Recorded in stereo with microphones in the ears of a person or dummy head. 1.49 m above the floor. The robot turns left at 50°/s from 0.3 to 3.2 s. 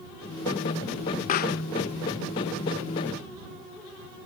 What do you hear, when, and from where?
1.3 s a pop: 40° left (ahead or behind); by 1.6 s 55° left (ahead or behind)